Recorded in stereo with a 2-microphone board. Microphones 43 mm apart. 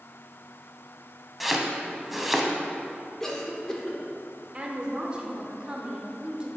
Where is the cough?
10° left (ahead or behind), 0.7 m.